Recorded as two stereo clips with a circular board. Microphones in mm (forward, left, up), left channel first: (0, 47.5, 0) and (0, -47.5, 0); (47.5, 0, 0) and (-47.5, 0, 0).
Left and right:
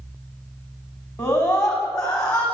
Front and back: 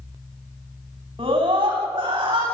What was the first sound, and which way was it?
A scream, 145° left.